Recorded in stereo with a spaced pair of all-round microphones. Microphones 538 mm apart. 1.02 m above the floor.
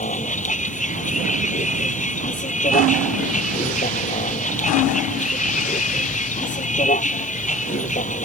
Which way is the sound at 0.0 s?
15° left (ahead or behind).